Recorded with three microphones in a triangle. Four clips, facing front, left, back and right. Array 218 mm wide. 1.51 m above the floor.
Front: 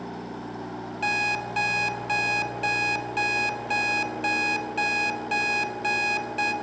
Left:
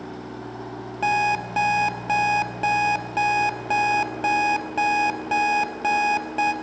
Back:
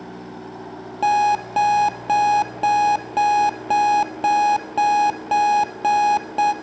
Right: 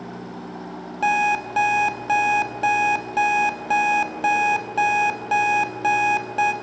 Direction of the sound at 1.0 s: Straight behind.